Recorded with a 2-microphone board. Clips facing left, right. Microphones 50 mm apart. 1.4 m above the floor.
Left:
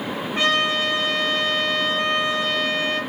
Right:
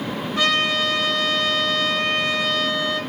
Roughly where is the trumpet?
Left.